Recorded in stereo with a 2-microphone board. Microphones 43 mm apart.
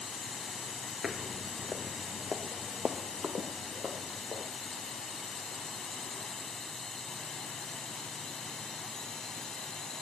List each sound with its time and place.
0.0 s a drone: 5° left (ahead or behind); by 10.0 s 10° left (ahead or behind)
1.0 s footsteps: 5° right (ahead or behind); by 4.5 s 20° right (ahead or behind)